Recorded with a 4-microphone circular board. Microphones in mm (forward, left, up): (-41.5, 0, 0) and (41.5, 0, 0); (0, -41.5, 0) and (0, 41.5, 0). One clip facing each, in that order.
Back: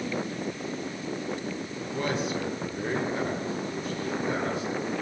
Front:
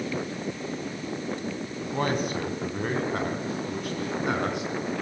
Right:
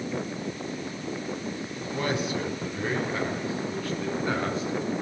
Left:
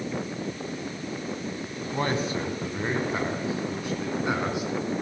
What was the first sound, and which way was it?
A man speaking, 40° left.